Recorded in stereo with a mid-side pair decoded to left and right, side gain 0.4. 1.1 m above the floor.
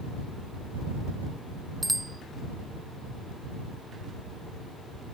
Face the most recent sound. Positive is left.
turn(degrees=-10)